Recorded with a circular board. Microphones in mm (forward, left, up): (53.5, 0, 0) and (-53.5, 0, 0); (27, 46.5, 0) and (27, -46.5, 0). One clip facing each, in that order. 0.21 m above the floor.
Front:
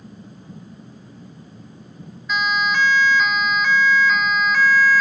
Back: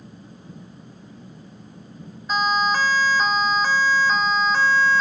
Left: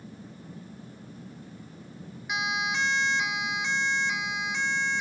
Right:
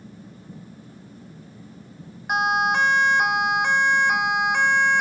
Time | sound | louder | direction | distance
2.3 | a siren | back 1 dB, right 9 dB | 125° right | ?